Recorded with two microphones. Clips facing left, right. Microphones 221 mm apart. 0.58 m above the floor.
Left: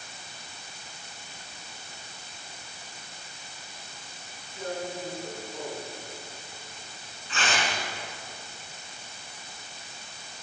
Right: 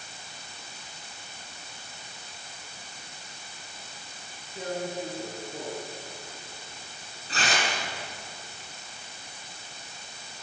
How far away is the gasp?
I don't hear a gasp.